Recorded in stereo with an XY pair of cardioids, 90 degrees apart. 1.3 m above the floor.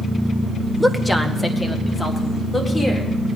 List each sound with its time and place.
0.8 s a woman speaking: 5° left, 0.9 m; by 3.1 s 35° left, 2.5 m